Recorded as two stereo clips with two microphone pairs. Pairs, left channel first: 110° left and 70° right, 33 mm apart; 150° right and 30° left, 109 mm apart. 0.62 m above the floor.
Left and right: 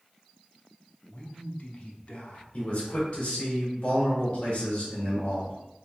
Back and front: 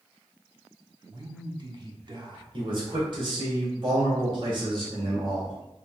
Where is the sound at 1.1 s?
65° left, 1.0 m.